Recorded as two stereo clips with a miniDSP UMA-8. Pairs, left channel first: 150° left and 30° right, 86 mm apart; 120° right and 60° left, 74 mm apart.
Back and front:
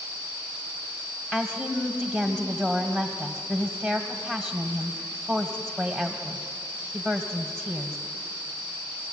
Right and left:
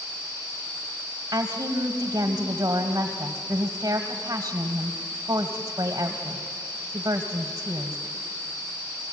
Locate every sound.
1.3 s a woman speaking: 60° left, 1.7 m